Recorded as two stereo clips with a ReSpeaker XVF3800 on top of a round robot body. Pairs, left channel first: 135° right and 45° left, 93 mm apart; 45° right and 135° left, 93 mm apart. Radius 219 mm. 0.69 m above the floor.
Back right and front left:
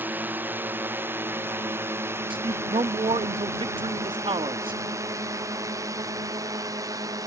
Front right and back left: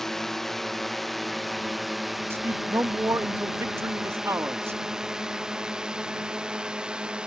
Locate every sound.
0.0 s a drone: 35° left; by 7.3 s 60° left
2.3 s a man speaking: 70° left